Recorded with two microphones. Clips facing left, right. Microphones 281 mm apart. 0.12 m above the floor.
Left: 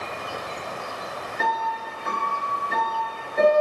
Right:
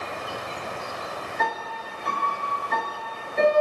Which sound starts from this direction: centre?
A piano, at 1.4 s.